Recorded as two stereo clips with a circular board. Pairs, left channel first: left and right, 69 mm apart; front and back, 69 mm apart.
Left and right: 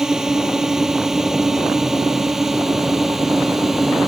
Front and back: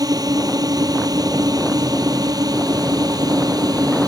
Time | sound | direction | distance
0.0 | a drone | 175° right | ?